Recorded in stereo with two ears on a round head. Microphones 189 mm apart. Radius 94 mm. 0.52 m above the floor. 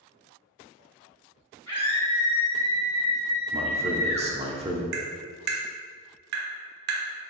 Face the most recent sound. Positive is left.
turn(degrees=-50)  # may be behind; listen again after turning